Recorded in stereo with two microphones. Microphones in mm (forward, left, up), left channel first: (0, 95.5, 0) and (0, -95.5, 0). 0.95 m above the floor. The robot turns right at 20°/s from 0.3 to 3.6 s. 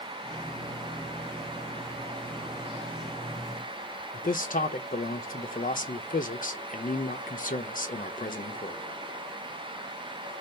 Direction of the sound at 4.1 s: 45° left (ahead or behind).